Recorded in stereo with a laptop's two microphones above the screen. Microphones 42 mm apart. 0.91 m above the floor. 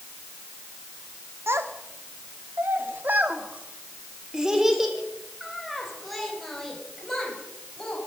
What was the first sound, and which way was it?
A child speaking, 80° right.